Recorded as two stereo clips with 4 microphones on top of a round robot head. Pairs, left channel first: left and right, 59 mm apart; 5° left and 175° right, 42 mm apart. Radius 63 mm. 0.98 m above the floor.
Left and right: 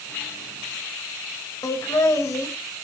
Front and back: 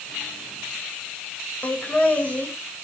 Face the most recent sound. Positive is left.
turn(degrees=60)